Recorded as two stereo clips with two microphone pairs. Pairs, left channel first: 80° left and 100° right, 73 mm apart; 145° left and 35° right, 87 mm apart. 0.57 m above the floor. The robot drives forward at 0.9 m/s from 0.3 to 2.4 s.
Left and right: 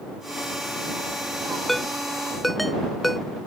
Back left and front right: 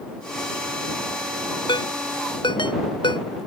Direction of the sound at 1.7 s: 170° left.